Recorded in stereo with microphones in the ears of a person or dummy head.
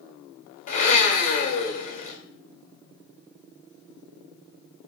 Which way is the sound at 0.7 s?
40° left (ahead or behind).